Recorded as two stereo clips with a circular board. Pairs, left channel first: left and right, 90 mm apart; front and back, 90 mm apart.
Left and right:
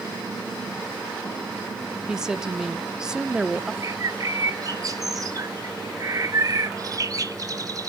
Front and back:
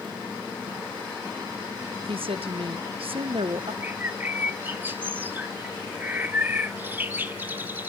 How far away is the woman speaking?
About 1.0 m.